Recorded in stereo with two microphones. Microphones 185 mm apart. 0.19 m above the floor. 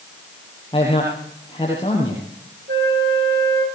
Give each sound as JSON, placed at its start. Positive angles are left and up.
{"t": 0.7, "sound": "a man speaking", "side_deg": 25, "distance_m": 6.0}
{"t": 2.7, "sound": "a flute", "side_deg": -65, "distance_m": 9.0}